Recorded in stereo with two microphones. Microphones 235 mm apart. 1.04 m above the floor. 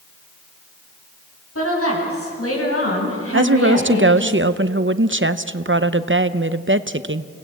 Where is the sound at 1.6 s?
80° left, 8 m; by 4.3 s 60° left (ahead or behind), 5 m.